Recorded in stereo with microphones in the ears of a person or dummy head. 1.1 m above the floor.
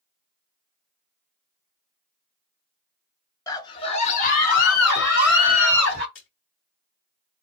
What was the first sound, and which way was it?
A scream, 15° left (ahead or behind).